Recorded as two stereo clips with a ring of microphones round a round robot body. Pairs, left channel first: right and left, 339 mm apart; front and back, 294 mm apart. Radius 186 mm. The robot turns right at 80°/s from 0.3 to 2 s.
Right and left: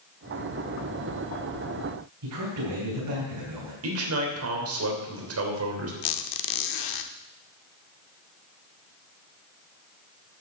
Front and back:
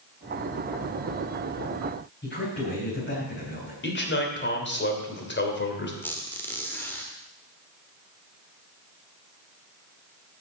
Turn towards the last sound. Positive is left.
turn(degrees=-85)